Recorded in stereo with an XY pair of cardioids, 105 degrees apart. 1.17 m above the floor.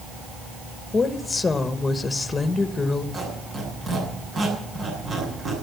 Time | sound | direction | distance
0.9 | a woman speaking | 30° left | 1.4 m
3.1 | a squeak | 40° right | 8 m